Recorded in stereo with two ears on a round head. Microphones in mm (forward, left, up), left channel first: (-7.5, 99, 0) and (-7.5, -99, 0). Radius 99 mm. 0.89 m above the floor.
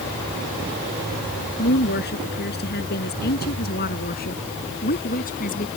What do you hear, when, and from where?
1.6 s a woman speaking: 50° left (ahead or behind); by 5.7 s 40° left (ahead or behind)